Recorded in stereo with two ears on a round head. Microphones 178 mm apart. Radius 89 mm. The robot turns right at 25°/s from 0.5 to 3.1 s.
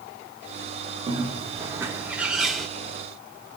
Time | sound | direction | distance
1.1 | a bird | 35° right | 0.8 m